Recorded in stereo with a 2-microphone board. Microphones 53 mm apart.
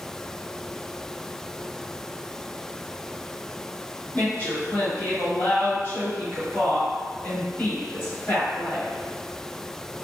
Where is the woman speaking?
40° left (ahead or behind), 1.5 m.